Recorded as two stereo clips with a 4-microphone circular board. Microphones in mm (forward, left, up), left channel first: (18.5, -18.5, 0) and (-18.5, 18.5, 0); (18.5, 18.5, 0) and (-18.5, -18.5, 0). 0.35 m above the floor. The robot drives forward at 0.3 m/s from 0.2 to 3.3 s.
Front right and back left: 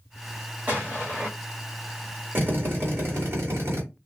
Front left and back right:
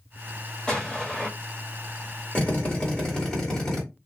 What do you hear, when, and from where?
0.7 s an explosion: 110° left, 1.4 m; by 1.3 s 125° left, 1.4 m
2.4 s a drill: 105° left, 1.4 m; by 3.8 s 120° left, 1.5 m